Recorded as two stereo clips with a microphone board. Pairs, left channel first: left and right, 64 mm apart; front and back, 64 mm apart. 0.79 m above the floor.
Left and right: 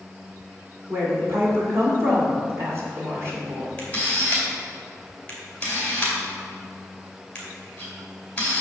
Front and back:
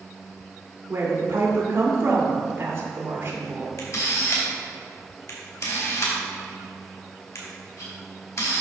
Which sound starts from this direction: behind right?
A woman speaking, at 0.9 s.